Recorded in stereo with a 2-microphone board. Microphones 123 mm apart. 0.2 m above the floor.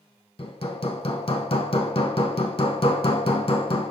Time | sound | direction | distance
0.4 | hammering | 50° left (ahead or behind) | 0.8 m